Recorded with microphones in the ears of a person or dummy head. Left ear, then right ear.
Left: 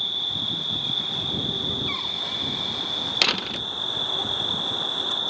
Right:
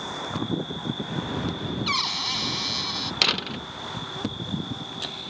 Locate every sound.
0.0 s an insect: 75° left (ahead or behind)
1.9 s a cupboard door: 40° right (ahead or behind)
3.2 s a door slam: 10° left (ahead or behind)